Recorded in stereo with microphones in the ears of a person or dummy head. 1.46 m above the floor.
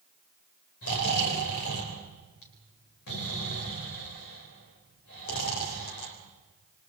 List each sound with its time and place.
0.8 s snoring: 60° left (ahead or behind), 4 m